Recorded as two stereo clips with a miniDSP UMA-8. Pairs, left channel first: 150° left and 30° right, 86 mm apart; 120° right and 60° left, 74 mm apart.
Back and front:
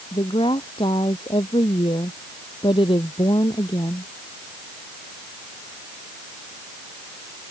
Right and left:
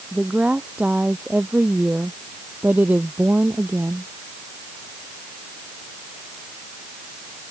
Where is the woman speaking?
135° left; by 4.1 s 120° left.